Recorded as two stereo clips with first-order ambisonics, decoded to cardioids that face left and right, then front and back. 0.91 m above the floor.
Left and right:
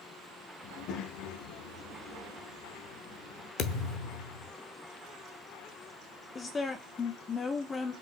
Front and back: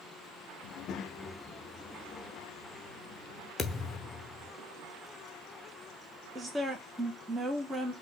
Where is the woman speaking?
120° left, 0.6 m.